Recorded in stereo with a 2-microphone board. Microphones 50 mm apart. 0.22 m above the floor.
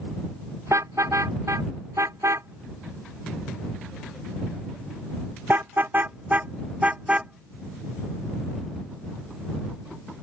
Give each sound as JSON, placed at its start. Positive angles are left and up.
{"t": 0.7, "sound": "a car horn", "side_deg": -75}